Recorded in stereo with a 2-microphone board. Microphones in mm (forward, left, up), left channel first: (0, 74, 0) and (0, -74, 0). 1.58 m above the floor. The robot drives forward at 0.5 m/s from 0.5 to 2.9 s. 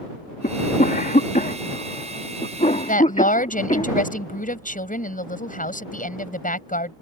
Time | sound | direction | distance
0.4 | a cough | 75° left (ahead or behind) | ?
2.9 | a woman speaking | 65° left (ahead or behind) | ?